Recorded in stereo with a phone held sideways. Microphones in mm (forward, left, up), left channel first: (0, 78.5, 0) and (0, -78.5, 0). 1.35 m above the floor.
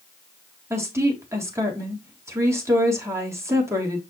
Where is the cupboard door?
No cupboard door in this recording.